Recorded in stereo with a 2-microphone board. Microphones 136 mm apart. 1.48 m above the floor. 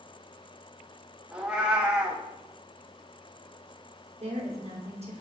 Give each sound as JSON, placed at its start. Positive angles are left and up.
{"t": 1.3, "sound": "a cat meowing", "side_deg": -5, "distance_m": 1.2}
{"t": 4.2, "sound": "a woman speaking", "side_deg": -50, "distance_m": 2.0}